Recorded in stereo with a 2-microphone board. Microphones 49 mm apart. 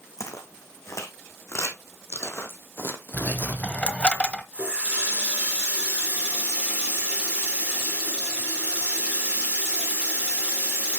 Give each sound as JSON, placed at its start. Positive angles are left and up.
{"t": 0.2, "sound": "footsteps", "side_deg": 75, "distance_m": 2.5}
{"t": 3.1, "sound": "a dropped coin", "side_deg": 25, "distance_m": 1.0}
{"t": 4.5, "sound": "a running tap", "side_deg": -25, "distance_m": 5.0}